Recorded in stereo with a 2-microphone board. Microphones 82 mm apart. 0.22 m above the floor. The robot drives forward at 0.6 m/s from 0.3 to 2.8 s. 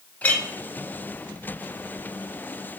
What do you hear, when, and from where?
0.2 s a clink: 20° left (ahead or behind), 0.6 m